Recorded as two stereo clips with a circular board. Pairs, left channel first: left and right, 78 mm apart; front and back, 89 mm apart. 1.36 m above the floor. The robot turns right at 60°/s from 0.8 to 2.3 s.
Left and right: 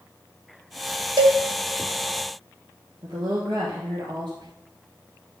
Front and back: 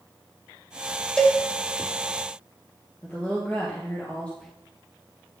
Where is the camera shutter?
I don't hear a camera shutter.